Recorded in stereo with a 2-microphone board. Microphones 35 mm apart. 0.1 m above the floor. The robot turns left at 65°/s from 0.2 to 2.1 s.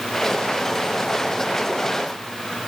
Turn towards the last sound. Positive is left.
No sound to turn to.